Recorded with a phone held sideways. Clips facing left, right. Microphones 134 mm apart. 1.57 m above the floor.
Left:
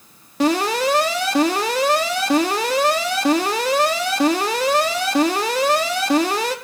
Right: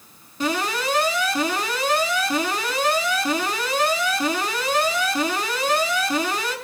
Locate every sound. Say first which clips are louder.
0.4 s an alarm: left 6 dB; 80° left, 4 m